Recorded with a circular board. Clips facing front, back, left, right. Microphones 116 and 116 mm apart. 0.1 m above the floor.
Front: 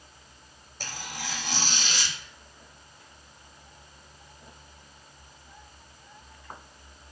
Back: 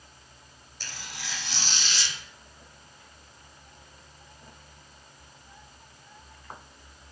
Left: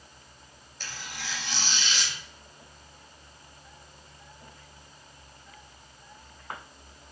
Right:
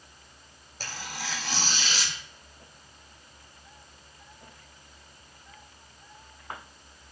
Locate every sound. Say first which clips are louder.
0.8 s tearing paper: front 5 dB, right 3 dB; 40° right, 0.7 m